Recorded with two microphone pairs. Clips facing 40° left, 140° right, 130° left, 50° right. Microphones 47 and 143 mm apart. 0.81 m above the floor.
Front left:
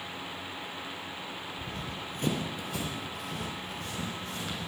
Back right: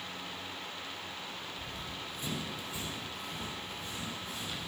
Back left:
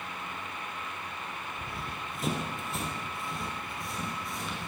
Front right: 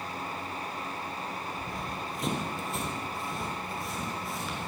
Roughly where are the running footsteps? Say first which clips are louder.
Front left 4 dB, front right 3 dB; ahead left.